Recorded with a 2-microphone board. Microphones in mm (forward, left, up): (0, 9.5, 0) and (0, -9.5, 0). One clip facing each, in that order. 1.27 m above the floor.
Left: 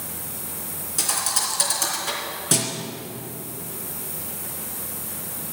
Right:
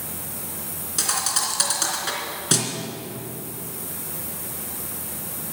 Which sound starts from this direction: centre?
A thud, at 1.0 s.